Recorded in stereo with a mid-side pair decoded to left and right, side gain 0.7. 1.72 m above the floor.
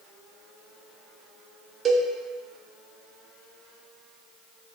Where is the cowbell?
30° right, 0.8 m.